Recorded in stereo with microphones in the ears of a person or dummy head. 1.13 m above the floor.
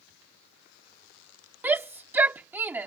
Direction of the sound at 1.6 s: 5° right (ahead or behind).